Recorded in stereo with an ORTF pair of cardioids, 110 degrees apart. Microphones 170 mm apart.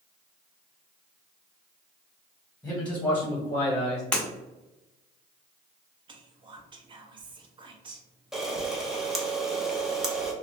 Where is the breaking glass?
5° left, 1.2 m.